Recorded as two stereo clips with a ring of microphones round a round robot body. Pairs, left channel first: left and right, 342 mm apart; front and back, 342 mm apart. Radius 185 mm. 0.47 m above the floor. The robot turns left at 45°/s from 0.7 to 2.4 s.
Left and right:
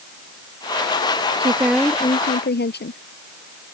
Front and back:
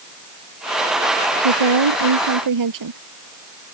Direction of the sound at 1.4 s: 165° right.